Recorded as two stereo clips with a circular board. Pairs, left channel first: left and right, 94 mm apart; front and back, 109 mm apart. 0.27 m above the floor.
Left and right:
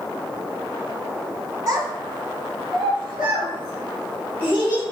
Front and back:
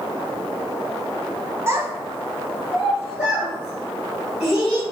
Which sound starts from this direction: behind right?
A child speaking, at 1.7 s.